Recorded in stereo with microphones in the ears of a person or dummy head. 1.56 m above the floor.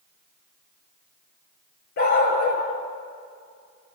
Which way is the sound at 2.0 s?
55° left (ahead or behind).